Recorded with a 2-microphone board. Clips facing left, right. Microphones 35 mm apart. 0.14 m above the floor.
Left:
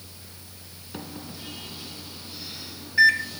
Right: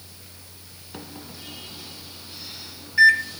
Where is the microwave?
Centre (ahead or behind), 1.0 m.